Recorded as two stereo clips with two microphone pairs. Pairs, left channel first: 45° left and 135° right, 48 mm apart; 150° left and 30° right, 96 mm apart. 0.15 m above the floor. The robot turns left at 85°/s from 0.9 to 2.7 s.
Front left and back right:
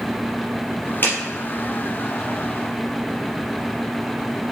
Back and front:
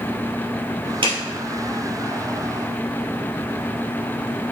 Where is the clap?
Straight ahead, 2.5 m; by 1.2 s 10° right, 2.5 m.